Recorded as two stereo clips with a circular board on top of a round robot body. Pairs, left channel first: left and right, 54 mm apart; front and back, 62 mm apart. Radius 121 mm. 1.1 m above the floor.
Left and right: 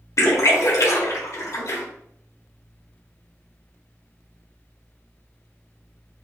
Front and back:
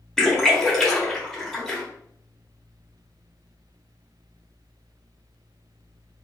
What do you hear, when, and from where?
0.2 s a splash: 80° left, 1.3 m